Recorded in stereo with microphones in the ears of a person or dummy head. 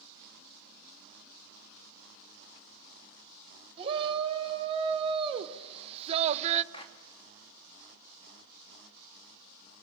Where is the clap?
25° left (ahead or behind), 2.5 m.